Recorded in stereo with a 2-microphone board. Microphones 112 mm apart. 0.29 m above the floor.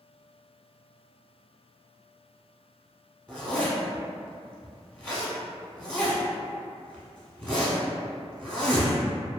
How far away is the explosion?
No explosion in this recording.